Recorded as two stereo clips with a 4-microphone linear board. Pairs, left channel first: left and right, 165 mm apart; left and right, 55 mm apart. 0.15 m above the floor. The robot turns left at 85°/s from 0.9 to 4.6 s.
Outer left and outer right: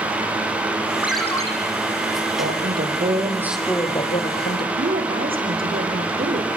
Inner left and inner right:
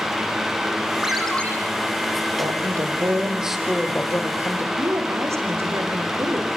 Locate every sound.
1.0 s a ringtone: 170° right, 4.5 m; by 1.5 s 150° left, 4.5 m
2.4 s a woman speaking: 80° right, 5.5 m; by 4.7 s 95° left, 5.5 m
4.8 s a woman speaking: 60° right (ahead or behind), 8 m